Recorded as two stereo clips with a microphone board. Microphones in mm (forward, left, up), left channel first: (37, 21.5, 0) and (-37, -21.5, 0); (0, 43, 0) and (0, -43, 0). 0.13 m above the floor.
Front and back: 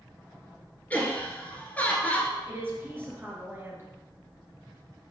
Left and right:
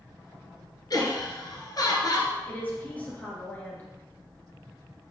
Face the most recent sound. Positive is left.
turn(degrees=155)